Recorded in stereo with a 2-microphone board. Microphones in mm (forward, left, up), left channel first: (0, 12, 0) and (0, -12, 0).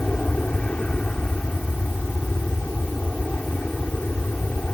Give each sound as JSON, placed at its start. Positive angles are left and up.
{"t": 0.0, "sound": "an aircraft", "side_deg": 55}